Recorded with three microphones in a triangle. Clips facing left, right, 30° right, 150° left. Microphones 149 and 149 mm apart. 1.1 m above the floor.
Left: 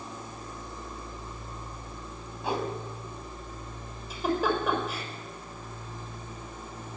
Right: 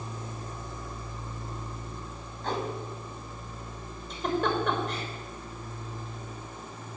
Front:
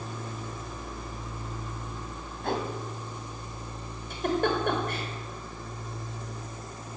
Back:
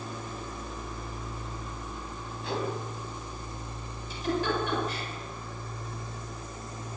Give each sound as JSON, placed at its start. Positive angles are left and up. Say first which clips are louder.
{"t": 2.4, "sound": "a whoosh", "louder": "left 1 dB, front 2 dB", "azimuth_deg": 10, "distance_m": 4.5}
{"t": 4.1, "sound": "a giggle", "louder": "left 1 dB, front 2 dB", "azimuth_deg": 5, "distance_m": 5.5}